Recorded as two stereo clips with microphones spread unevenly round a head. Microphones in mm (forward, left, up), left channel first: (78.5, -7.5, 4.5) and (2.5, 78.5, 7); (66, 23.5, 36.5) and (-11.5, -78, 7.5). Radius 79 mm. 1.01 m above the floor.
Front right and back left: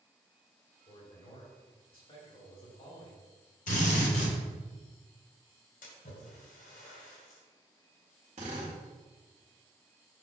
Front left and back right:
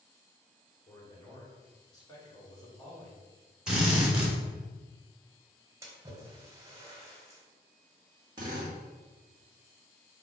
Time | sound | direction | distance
0.9 | a man speaking | 10° right | 3 m
3.7 | a drill | 40° right | 2.5 m
5.8 | a splash | 60° right | 2 m
8.4 | a drill | straight behind | 1.8 m